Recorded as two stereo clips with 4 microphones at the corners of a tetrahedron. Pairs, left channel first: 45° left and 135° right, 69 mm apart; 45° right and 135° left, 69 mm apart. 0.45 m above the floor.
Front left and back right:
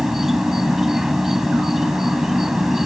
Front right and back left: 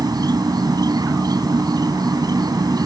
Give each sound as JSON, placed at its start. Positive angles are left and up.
{"t": 0.0, "sound": "an insect", "azimuth_deg": 140}